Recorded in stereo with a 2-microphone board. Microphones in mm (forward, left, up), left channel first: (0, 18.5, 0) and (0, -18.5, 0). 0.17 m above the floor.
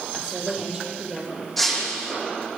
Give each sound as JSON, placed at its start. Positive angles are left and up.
{"t": 0.1, "sound": "a woman speaking", "side_deg": -20, "distance_m": 6.0}
{"t": 1.6, "sound": "breaking glass", "side_deg": 5, "distance_m": 5.5}